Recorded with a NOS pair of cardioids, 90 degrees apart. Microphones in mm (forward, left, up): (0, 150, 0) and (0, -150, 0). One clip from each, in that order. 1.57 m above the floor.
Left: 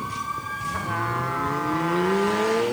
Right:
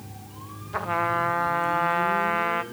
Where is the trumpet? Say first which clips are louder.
Right 5 dB; 30° right, 1.0 m.